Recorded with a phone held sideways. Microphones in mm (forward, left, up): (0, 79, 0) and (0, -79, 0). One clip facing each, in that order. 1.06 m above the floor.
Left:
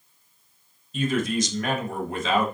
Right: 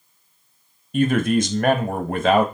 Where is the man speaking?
65° right (ahead or behind), 1.0 m.